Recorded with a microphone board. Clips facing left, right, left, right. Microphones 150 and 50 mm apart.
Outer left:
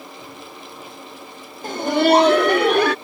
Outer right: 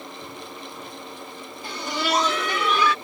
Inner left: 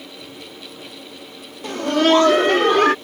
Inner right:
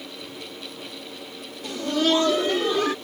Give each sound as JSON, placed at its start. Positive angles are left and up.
{"t": 1.6, "sound": "laughter", "side_deg": 45}